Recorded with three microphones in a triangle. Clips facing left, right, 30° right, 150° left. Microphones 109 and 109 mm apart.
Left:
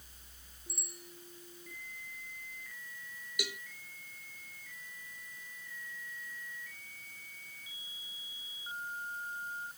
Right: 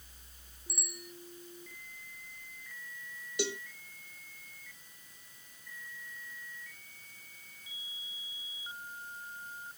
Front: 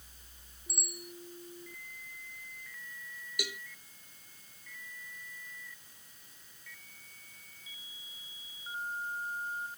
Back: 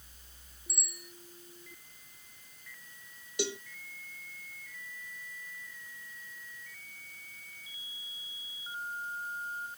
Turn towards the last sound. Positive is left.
turn(degrees=-150)